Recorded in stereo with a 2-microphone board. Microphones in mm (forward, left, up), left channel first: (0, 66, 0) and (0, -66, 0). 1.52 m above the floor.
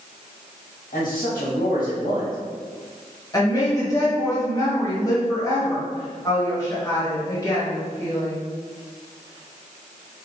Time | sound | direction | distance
0.9 | a man speaking | 75° left (ahead or behind) | 1.7 m
3.3 | a woman speaking | 25° left (ahead or behind) | 1.8 m